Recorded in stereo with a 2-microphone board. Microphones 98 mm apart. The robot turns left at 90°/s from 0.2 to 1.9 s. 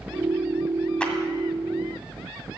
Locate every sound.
1.0 s a clap: 10° left (ahead or behind), 1.8 m; by 1.1 s 20° left (ahead or behind), 1.8 m